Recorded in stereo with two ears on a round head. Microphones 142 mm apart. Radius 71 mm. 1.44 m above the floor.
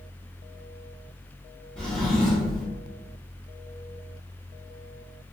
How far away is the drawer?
About 1.0 m.